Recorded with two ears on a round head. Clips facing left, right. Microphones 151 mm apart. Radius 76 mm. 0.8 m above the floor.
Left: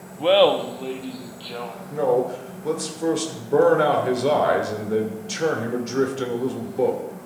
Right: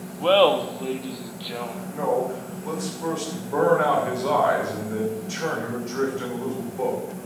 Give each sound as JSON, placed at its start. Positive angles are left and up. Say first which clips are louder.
{"t": 0.2, "sound": "laughter", "louder": "left 1 dB", "side_deg": 15, "distance_m": 1.1}
{"t": 1.9, "sound": "a man speaking", "louder": "left 4 dB", "side_deg": 45, "distance_m": 3.0}